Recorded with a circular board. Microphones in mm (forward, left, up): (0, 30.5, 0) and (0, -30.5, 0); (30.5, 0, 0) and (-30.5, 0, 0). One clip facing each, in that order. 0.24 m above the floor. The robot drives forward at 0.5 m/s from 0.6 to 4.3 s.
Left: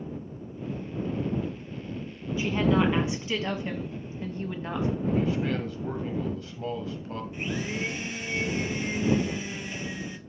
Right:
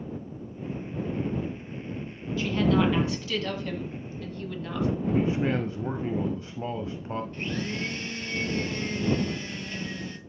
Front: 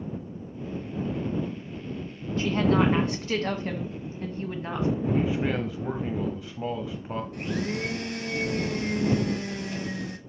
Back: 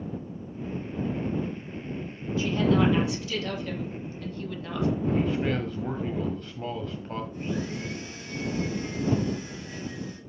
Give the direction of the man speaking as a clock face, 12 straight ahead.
2 o'clock.